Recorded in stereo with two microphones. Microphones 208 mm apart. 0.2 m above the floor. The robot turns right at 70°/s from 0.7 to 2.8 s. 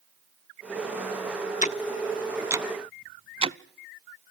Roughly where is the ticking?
Left.